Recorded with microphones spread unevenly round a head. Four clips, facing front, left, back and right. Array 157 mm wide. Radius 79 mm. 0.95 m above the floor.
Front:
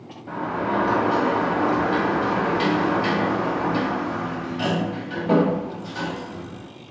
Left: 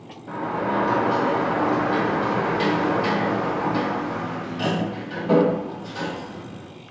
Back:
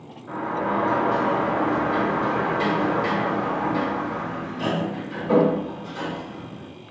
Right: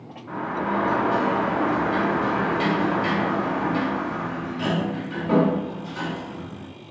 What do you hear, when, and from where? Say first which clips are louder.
0.3 s a sliding door: left 1 dB, even; 25° left, 1.4 m